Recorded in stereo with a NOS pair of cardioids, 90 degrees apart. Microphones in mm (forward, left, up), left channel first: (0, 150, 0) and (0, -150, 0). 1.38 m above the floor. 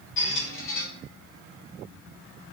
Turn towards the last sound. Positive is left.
turn(degrees=45)